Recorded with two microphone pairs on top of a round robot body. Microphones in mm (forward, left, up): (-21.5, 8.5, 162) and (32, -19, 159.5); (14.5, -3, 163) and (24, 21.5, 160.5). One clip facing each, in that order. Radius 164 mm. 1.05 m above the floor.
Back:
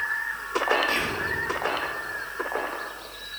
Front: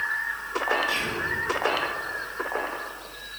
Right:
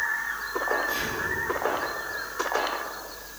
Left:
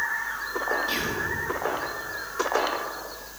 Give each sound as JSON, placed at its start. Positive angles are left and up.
{"t": 0.9, "sound": "whispering", "azimuth_deg": 105, "distance_m": 3.0}